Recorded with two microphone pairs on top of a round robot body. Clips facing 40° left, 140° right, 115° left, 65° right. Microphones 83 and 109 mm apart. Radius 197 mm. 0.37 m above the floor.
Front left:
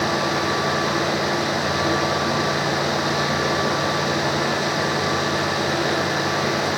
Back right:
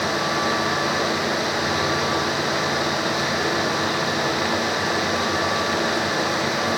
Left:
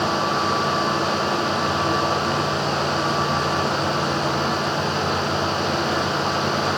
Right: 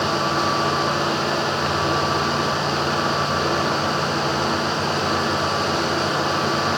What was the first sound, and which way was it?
Only background noise.